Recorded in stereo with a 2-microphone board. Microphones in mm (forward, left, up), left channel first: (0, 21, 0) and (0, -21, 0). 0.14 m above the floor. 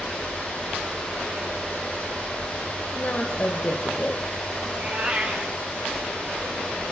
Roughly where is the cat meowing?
Right.